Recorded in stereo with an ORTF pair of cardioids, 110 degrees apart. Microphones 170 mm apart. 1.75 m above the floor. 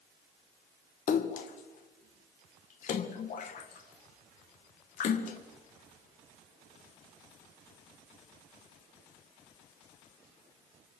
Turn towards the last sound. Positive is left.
turn(degrees=55)